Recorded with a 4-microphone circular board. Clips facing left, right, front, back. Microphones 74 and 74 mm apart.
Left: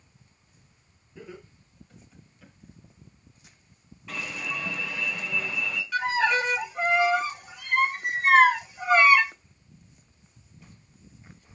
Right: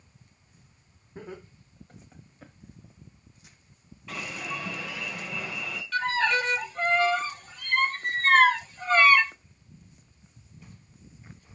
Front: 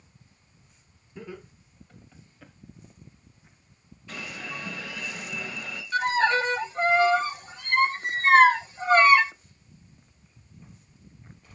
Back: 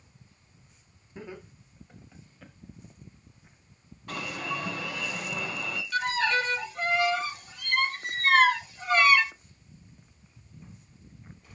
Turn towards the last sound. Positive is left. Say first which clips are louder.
# left 1 dB, front 4 dB
turn(degrees=25)